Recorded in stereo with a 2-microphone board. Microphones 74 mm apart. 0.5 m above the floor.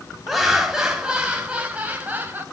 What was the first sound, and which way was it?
Laughter, 5° right (ahead or behind).